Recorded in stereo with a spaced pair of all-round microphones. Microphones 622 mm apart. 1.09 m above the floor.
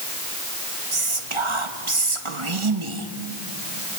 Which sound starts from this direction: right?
Whispering, at 0.9 s.